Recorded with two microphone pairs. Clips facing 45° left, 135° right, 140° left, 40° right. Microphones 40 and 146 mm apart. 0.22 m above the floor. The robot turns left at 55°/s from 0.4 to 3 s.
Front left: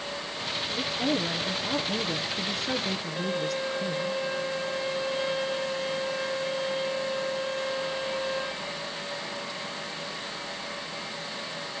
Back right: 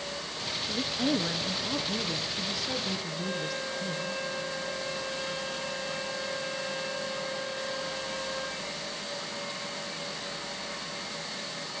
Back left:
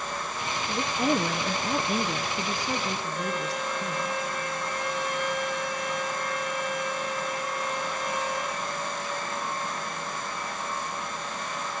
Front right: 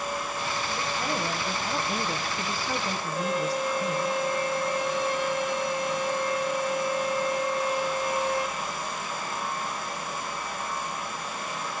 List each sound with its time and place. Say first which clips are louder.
0.7 s a woman speaking: front left 1 dB, back left 8 dB; straight behind, 3 m; by 4.2 s 50° left, 3 m
3.2 s a violin: front left 4 dB, front right 3 dB; 30° left, 8.5 m